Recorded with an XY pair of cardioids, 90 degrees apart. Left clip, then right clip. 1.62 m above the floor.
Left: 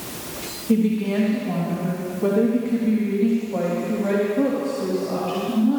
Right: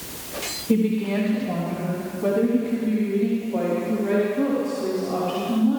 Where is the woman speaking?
Straight ahead, 3 m; by 5.8 s 55° left, 5 m.